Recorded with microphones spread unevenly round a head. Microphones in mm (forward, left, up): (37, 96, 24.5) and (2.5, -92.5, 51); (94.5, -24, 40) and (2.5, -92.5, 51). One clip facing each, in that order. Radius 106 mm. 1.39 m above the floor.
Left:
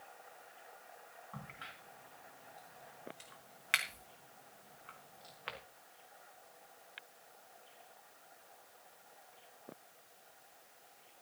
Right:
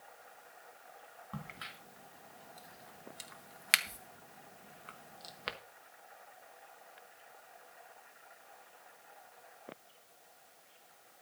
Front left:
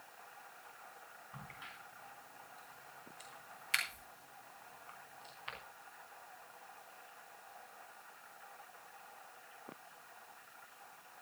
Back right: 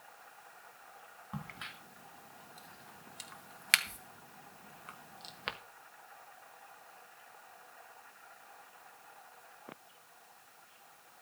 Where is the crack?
145° right, 1.1 m.